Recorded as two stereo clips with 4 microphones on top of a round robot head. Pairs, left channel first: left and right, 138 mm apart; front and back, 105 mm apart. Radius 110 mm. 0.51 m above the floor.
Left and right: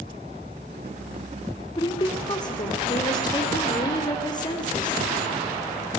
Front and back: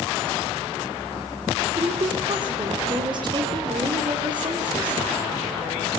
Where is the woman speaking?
145° left, 2 m.